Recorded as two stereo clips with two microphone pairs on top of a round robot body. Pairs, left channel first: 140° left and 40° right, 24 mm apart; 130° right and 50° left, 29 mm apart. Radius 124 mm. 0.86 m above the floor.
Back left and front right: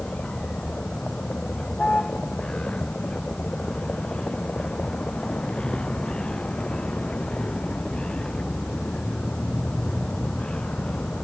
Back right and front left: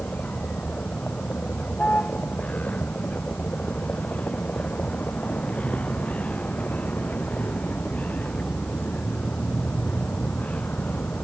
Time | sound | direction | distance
0.0 | a vehicle | 175° right | ?